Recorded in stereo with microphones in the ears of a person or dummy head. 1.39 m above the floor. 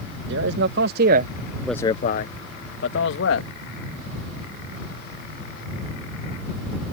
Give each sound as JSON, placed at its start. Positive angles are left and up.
{"t": 0.3, "sound": "a man speaking", "side_deg": -75}